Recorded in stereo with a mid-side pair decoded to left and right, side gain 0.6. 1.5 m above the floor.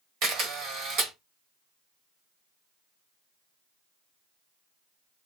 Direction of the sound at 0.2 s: 65° right.